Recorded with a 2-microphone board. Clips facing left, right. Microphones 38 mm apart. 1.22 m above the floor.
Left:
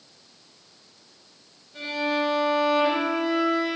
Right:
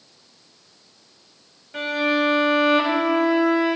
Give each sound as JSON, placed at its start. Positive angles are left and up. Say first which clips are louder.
{"t": 1.7, "sound": "a violin", "louder": "right 5 dB", "side_deg": -75, "distance_m": 6.0}